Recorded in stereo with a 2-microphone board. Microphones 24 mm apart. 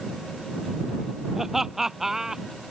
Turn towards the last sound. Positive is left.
turn(degrees=-20)  # may be behind; listen again after turning